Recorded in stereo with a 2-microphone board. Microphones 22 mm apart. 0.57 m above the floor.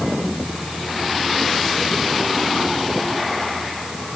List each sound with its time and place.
Only background noise.